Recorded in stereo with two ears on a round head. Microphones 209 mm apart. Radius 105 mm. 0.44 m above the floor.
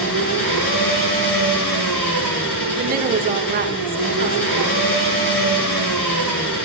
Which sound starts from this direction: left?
An engine running, at 0.0 s.